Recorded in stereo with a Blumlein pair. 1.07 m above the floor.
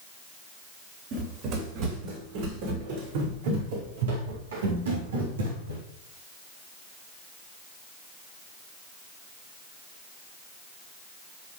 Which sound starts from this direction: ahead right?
Running footsteps, at 1.1 s.